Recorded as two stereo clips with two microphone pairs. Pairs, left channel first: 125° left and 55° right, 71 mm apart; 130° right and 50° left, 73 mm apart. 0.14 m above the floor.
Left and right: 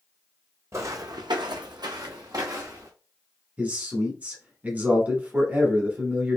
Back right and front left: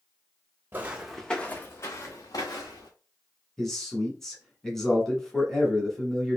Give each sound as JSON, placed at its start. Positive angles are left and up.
{"t": 0.7, "sound": "footsteps", "azimuth_deg": -10, "distance_m": 0.6}
{"t": 3.6, "sound": "a man speaking", "azimuth_deg": -55, "distance_m": 1.2}